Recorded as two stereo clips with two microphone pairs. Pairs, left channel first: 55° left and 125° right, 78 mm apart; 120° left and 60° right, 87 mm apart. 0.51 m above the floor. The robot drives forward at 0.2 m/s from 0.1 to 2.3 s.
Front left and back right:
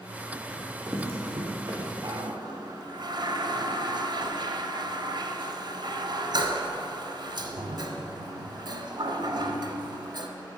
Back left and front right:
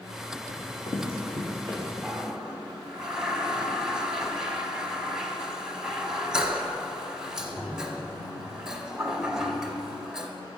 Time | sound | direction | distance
0.5 | running footsteps | 160° left | 1.7 m
2.0 | a toilet flushing | 140° right | 0.7 m